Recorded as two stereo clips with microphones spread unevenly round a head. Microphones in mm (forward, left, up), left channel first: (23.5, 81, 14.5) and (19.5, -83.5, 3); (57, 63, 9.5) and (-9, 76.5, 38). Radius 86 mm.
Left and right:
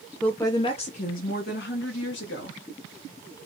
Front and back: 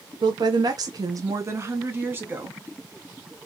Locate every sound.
0.2 s a woman speaking: 175° left, 0.6 m; by 2.6 s 100° left, 1.4 m